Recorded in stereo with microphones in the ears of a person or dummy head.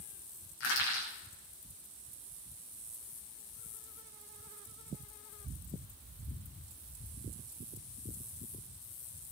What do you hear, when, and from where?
0.6 s crushing: 65° left (ahead or behind), 3.5 m